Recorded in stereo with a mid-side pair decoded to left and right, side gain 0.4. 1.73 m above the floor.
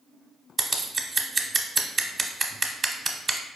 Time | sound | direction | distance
0.6 | scissors | 35° right | 0.6 m